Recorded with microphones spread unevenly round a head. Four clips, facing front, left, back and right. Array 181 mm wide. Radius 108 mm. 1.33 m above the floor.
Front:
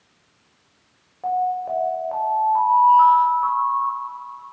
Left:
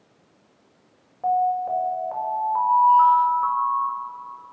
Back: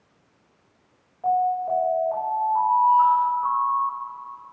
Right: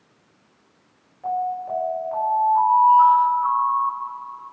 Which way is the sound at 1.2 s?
45° left.